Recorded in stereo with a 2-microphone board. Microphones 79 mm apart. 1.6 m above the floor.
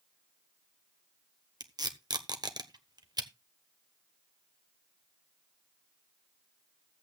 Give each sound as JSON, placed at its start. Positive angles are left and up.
{"t": 1.6, "sound": "tape being pulled", "side_deg": -60, "distance_m": 1.2}